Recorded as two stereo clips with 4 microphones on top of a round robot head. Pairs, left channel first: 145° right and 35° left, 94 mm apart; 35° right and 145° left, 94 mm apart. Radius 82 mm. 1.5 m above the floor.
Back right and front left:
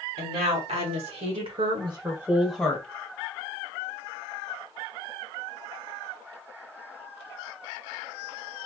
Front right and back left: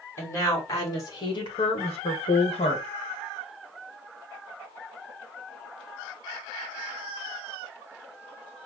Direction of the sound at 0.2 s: 30° left.